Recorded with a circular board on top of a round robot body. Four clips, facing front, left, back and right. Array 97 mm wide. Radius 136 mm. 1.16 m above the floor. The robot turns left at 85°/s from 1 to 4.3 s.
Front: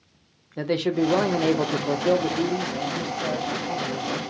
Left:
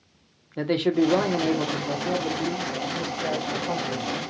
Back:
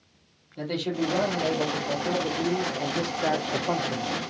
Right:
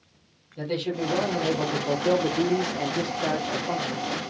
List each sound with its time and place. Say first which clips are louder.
0.6 s a man speaking: left 7 dB, front 5 dB; 45° left, 1.1 m; by 4.1 s 140° left, 1.1 m